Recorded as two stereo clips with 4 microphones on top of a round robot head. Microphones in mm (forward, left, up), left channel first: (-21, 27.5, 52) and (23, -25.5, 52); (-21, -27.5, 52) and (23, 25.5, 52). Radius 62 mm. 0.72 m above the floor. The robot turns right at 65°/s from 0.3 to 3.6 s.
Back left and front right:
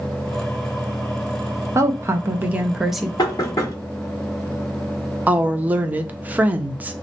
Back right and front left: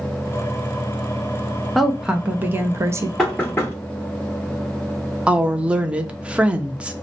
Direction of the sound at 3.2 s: 145° left.